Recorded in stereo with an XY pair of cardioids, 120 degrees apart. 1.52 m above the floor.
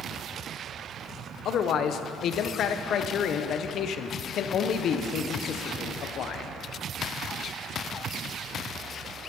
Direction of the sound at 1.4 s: 60° left.